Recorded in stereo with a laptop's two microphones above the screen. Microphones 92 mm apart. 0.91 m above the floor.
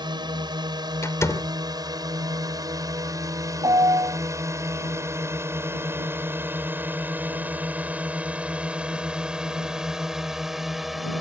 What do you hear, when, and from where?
0.0 s a drone: 55° right (ahead or behind); by 11.2 s centre (ahead or behind)
1.0 s a door slam: 35° left (ahead or behind)
3.6 s a piano: 60° right (ahead or behind)